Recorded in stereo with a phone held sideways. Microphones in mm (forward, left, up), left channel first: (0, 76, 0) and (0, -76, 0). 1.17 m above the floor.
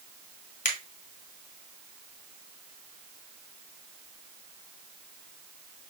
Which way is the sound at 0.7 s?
55° left (ahead or behind).